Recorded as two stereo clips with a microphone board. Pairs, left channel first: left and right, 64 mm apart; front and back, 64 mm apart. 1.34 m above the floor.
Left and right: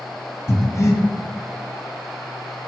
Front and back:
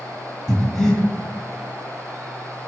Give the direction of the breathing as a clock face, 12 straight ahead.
9 o'clock.